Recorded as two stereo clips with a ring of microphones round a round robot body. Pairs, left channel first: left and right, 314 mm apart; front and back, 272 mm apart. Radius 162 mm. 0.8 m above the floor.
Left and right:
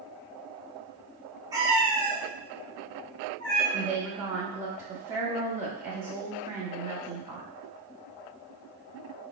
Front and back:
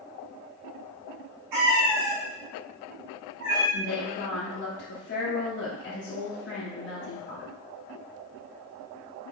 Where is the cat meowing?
170° right, 1.0 m; by 3.6 s 160° left, 2.5 m.